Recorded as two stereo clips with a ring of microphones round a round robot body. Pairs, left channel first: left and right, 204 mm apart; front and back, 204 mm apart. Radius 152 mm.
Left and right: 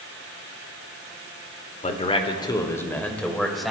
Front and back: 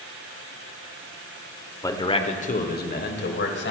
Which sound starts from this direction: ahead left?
A man speaking, at 1.8 s.